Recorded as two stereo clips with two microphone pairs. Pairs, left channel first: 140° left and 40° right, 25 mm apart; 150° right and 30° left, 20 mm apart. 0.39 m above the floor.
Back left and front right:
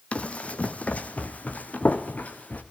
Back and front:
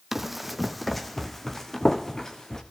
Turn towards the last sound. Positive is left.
turn(degrees=145)